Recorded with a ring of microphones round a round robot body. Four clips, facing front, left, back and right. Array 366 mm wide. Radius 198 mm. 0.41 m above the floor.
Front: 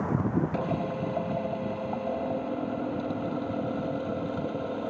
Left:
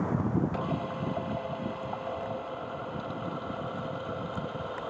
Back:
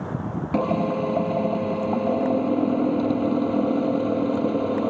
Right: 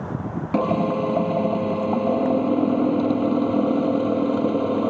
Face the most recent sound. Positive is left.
turn(degrees=-120)